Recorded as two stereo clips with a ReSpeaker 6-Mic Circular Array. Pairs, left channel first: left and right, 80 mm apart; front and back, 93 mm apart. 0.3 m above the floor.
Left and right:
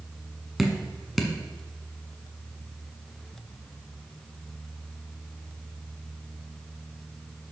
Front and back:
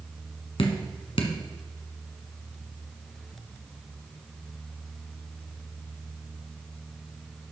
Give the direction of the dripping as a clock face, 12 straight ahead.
12 o'clock.